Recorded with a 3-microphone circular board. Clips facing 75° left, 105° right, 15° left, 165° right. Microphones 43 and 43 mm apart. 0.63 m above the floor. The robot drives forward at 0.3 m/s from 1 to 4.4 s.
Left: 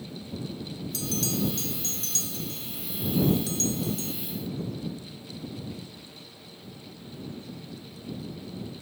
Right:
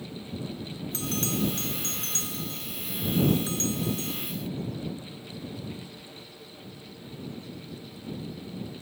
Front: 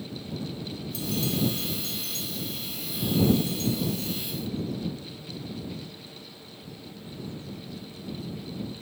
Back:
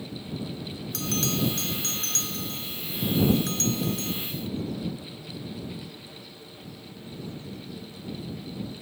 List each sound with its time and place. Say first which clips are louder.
0.9 s a bell: even, back 1 dB; 160° right; by 4.1 s 165° right